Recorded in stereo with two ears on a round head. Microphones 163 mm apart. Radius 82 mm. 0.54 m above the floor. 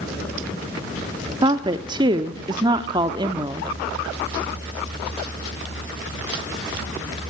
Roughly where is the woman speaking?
Right.